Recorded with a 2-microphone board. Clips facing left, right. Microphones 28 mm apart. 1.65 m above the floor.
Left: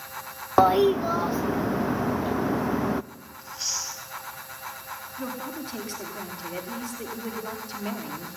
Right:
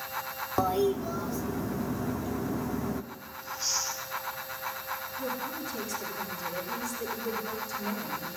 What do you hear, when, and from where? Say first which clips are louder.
0.6 s a toilet flushing: left 8 dB; 40° left (ahead or behind), 0.6 m
3.4 s chewing: even; 85° left, 9 m
5.2 s a woman speaking: left 3 dB; 50° left (ahead or behind), 4.5 m